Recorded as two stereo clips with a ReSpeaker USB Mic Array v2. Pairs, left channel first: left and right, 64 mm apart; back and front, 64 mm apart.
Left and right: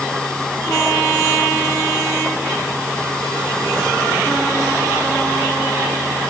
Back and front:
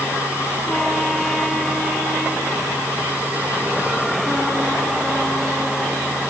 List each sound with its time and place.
Only background noise.